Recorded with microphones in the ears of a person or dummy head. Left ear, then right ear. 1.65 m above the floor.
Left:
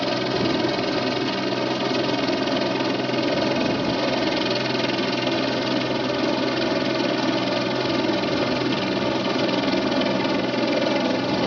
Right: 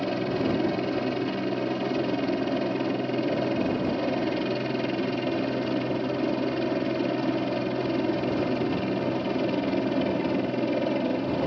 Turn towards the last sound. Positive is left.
turn(degrees=55)  # may be behind; listen again after turning